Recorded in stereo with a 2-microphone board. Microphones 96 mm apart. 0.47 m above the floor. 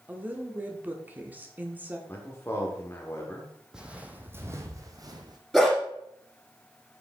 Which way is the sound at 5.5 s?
Centre (ahead or behind).